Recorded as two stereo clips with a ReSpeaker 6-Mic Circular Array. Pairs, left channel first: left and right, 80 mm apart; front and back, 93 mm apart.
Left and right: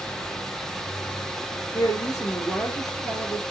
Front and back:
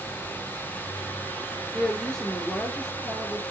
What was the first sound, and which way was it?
A woman speaking, 80° left.